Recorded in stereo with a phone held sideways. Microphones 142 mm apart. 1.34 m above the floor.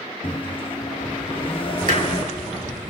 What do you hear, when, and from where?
0.2 s a microwave: 40° left (ahead or behind), 1.2 m
1.9 s hammering: 70° right (ahead or behind), 3 m